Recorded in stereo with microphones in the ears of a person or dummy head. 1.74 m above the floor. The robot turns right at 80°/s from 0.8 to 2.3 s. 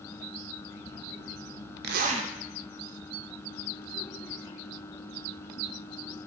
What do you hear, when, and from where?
1.8 s a zipper: 60° right, 0.8 m; by 2.3 s 25° right, 0.8 m